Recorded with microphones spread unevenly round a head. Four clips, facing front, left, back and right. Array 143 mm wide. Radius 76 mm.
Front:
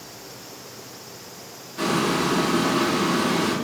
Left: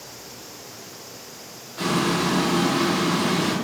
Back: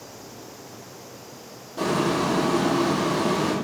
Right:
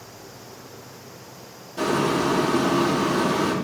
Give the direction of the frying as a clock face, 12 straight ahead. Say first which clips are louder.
Right 1 dB, even; 5 o'clock.